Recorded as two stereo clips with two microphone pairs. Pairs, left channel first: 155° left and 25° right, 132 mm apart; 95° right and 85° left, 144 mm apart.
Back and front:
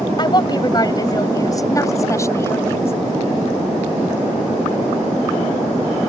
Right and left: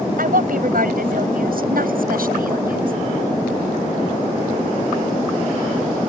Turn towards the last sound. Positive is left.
turn(degrees=85)